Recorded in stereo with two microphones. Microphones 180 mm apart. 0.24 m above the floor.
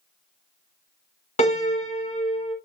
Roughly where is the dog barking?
I don't hear a dog barking.